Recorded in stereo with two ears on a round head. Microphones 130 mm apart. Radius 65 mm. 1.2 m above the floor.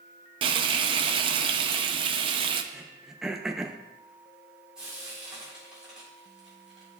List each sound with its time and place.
0.4 s frying: 35° right (ahead or behind), 0.5 m
2.7 s throat clearing: 5° right (ahead or behind), 0.6 m
4.8 s frying: 5° right (ahead or behind), 4 m